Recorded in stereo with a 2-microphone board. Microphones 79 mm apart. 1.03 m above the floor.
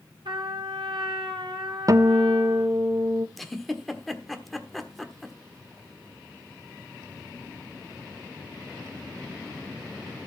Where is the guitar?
45° right (ahead or behind), 0.6 m.